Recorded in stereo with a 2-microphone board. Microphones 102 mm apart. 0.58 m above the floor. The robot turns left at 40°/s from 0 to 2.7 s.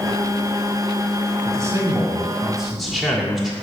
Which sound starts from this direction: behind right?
A man speaking, at 1.4 s.